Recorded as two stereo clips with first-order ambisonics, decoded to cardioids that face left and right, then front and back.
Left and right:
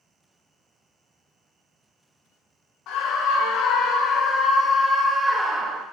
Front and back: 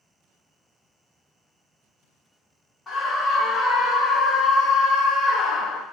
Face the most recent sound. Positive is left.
turn(degrees=-30)